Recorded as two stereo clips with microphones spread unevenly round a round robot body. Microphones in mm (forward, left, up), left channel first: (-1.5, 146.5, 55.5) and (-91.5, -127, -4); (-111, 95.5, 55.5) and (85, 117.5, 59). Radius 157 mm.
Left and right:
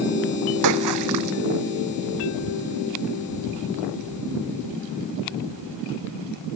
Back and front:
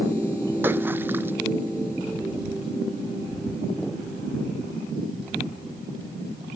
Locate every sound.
0.6 s a splash: 75° right